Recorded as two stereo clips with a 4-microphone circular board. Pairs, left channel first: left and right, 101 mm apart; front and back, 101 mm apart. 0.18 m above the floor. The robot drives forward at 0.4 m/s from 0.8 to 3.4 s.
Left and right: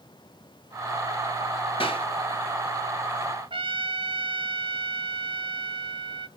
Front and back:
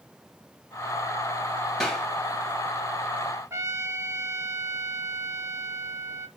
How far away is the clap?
About 2.5 m.